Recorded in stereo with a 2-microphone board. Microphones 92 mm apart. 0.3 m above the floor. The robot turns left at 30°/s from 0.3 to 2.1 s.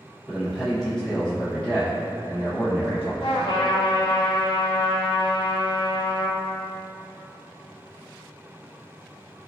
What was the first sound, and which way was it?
A man speaking, centre (ahead or behind).